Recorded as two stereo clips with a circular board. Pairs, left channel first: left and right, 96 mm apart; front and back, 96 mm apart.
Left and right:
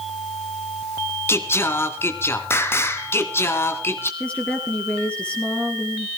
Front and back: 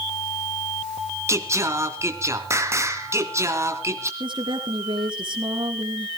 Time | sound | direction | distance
1.3 | singing | 140° left | 1.6 m
4.2 | a woman speaking | 165° left | 2.5 m